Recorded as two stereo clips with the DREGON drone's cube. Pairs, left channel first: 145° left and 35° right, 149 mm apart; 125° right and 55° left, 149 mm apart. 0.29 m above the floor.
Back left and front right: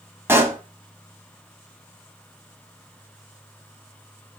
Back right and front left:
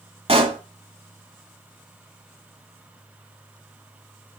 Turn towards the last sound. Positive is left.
turn(degrees=35)